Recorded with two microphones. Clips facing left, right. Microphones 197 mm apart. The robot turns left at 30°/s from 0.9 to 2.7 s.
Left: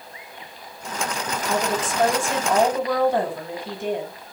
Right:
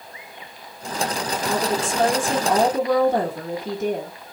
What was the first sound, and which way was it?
A woman speaking, 30° right.